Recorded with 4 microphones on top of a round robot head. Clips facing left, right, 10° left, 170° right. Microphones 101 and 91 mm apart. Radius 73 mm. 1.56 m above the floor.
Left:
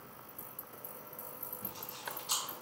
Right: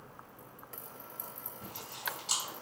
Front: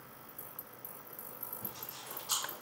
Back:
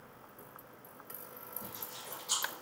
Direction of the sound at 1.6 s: 80° right.